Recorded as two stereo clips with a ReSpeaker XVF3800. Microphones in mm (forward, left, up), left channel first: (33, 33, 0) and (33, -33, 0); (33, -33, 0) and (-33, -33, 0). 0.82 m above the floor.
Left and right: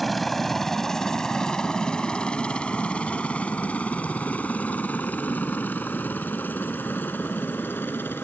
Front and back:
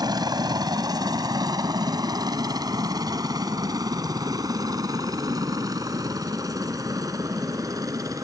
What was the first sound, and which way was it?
A helicopter, 175° left.